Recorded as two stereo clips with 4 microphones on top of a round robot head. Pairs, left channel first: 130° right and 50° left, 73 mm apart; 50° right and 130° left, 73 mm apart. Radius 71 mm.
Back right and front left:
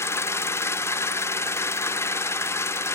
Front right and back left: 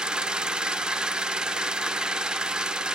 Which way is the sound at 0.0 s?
155° right.